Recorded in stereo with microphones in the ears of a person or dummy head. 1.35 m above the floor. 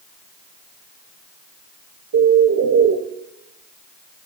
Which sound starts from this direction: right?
A bird, at 2.1 s.